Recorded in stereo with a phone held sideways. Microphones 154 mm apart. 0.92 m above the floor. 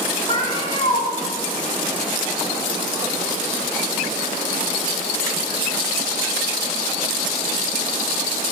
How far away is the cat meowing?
About 1.8 m.